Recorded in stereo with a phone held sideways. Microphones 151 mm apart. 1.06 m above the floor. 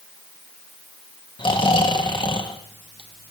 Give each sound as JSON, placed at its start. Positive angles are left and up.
{"t": 1.4, "sound": "snoring", "side_deg": 35, "distance_m": 0.8}